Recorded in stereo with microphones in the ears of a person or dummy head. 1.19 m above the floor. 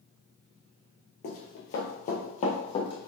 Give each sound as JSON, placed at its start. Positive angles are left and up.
{"t": 1.2, "sound": "running footsteps", "side_deg": 50, "distance_m": 1.7}